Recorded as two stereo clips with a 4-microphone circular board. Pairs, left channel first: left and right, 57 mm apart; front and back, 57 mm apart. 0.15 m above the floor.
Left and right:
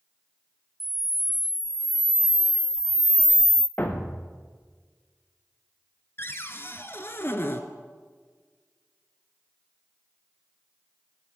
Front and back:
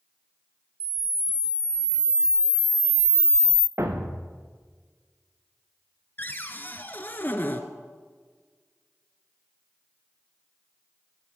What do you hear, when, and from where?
0.8 s a camera shutter: 175° right, 0.6 m
3.8 s a thud: 145° left, 2 m
6.2 s a cupboard door: 50° left, 1.3 m